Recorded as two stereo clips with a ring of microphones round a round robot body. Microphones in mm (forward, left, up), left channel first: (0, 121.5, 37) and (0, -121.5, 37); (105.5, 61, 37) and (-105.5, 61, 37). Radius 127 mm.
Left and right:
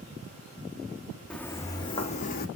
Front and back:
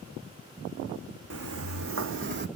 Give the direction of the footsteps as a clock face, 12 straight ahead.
6 o'clock.